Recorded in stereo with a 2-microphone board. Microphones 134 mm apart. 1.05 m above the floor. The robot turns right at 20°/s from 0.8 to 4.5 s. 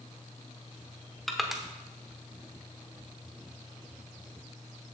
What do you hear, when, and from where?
1.3 s crushing: centre (ahead or behind), 1.0 m; by 1.6 s 5° right (ahead or behind), 1.0 m